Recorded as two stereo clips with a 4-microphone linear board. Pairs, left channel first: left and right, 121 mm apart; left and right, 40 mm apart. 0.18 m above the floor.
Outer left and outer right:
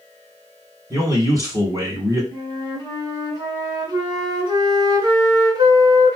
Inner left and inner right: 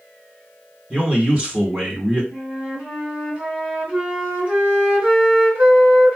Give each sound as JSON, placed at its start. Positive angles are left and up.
{"t": 0.9, "sound": "a man speaking", "side_deg": -25, "distance_m": 1.4}
{"t": 2.3, "sound": "a flute", "side_deg": -30, "distance_m": 1.9}